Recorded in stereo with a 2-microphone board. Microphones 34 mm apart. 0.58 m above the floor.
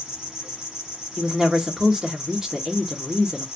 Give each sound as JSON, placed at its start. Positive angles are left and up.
{"t": 0.0, "sound": "an insect", "side_deg": -20, "distance_m": 1.4}
{"t": 1.2, "sound": "a woman speaking", "side_deg": -15, "distance_m": 1.0}